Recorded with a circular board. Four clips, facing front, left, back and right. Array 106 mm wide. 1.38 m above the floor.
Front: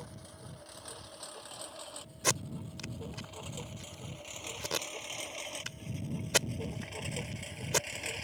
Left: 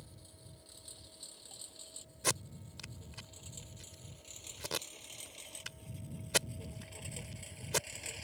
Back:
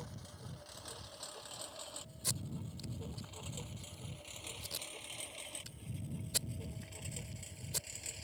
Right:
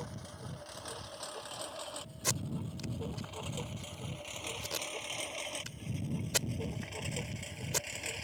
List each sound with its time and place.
0.0 s a lawn mower: 80° right; by 8.2 s 25° right
2.2 s tape being pulled: 10° left